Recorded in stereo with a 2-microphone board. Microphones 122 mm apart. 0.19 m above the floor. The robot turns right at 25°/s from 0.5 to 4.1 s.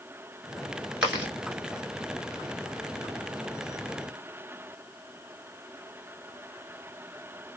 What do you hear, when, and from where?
1.0 s chewing: 10° right (ahead or behind), 1.0 m; by 1.3 s 15° right (ahead or behind), 1.0 m